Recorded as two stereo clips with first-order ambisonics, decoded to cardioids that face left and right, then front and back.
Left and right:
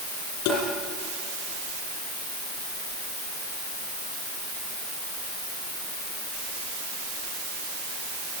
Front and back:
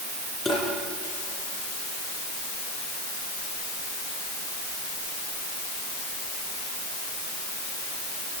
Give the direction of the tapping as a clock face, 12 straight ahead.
9 o'clock.